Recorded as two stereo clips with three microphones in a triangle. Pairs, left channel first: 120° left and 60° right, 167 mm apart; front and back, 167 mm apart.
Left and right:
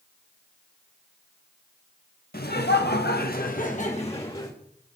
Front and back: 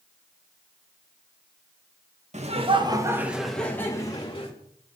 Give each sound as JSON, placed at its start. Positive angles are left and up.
{"t": 2.3, "sound": "laughter", "azimuth_deg": 135, "distance_m": 1.9}